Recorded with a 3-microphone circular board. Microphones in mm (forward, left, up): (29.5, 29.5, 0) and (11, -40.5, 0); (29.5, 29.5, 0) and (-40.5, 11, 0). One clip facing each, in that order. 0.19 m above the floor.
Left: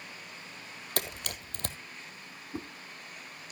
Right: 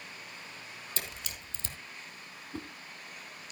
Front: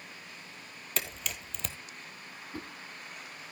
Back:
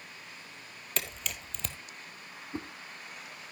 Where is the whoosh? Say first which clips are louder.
Left 2 dB, back 3 dB; 145° left, 1.0 m.